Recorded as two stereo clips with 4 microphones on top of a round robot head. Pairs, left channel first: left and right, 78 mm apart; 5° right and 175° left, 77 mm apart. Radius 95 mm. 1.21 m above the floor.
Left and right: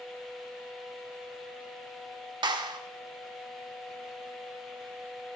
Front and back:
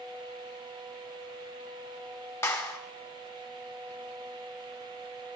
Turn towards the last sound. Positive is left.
turn(degrees=-65)